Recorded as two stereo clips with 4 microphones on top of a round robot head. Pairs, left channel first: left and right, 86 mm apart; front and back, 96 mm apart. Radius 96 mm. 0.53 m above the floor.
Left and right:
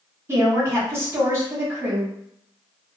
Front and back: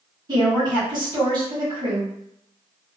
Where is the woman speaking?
145° right, 1.6 m.